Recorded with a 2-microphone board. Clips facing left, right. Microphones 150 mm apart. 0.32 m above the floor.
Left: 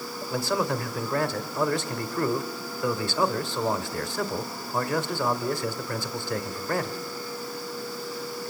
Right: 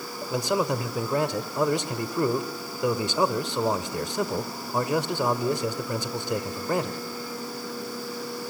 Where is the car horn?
I don't hear a car horn.